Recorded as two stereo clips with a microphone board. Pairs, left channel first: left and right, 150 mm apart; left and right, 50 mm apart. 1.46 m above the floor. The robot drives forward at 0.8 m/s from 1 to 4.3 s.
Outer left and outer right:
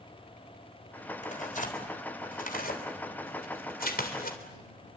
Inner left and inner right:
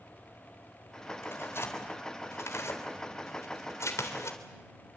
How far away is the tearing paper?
About 4 m.